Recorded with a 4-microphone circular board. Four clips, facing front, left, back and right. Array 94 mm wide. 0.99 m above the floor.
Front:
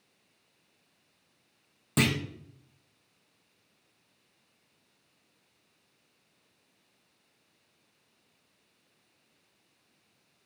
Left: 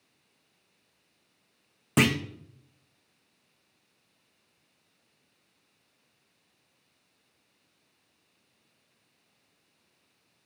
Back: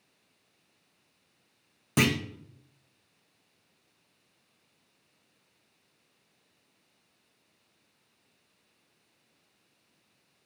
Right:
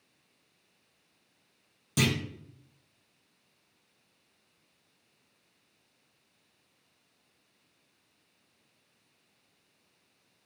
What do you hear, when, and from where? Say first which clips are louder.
2.0 s a clunk: left 5 dB, back 2 dB; 100° left, 1.2 m